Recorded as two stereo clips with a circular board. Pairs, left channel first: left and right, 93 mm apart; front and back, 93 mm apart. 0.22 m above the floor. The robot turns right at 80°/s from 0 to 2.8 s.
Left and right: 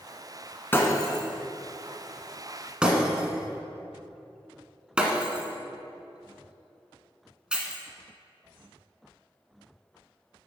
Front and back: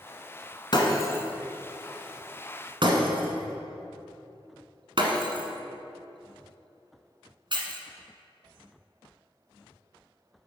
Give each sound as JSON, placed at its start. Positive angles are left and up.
{"t": 0.7, "sound": "breaking glass", "azimuth_deg": 25, "distance_m": 1.5}